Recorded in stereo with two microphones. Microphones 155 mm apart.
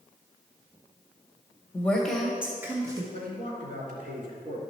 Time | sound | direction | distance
1.7 | a woman speaking | 10° left (ahead or behind) | 1.0 m
3.1 | a man speaking | 60° right (ahead or behind) | 3 m